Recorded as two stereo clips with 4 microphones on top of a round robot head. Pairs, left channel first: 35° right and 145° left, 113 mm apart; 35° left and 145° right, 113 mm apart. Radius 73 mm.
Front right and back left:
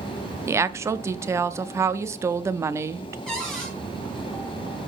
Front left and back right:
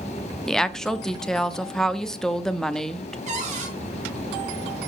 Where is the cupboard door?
125° right, 4.5 m.